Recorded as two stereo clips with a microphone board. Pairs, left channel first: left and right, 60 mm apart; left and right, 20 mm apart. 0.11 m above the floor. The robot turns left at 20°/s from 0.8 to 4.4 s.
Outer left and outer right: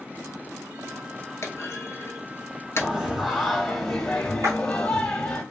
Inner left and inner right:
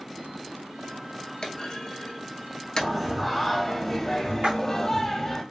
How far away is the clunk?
About 0.7 m.